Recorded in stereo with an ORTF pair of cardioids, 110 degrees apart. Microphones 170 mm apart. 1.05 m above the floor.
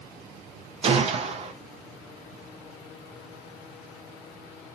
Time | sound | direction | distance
0.8 | a gunshot | 35° right | 0.6 m